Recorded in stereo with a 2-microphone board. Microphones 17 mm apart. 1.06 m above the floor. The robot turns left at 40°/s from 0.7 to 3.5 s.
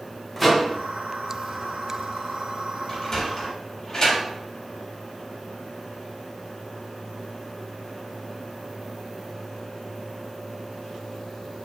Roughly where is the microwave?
Centre.